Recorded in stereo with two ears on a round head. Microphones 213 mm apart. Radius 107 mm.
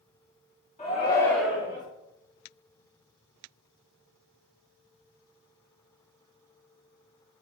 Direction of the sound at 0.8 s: 30° left (ahead or behind).